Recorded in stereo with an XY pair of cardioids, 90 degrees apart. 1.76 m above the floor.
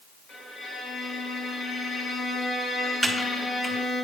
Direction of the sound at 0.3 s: 60° left.